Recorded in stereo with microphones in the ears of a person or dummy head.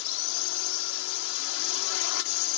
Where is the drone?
75° left (ahead or behind).